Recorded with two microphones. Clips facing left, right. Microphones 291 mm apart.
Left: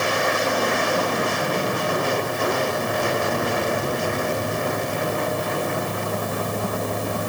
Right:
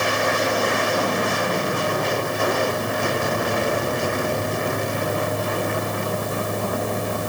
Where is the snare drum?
I don't hear a snare drum.